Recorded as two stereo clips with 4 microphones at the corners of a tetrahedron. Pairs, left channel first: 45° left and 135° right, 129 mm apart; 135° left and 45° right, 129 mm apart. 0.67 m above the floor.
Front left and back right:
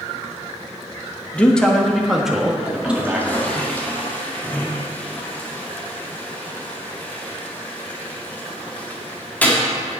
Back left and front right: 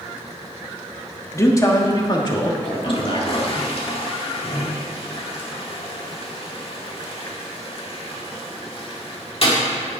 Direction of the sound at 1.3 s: 110° left.